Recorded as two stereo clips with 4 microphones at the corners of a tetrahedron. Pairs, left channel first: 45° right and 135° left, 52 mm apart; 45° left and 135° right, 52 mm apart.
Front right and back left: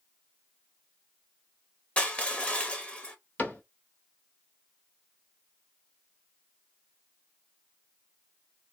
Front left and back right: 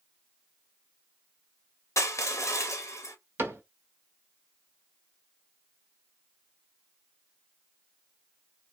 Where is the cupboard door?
100° right, 1.0 m.